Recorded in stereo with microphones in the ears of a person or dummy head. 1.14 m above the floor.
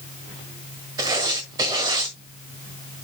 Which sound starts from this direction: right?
Writing, at 1.0 s.